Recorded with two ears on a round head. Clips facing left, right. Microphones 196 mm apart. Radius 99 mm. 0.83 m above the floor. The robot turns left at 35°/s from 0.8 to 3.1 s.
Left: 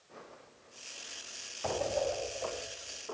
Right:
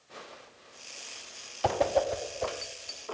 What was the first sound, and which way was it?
A whoosh, 75° right (ahead or behind).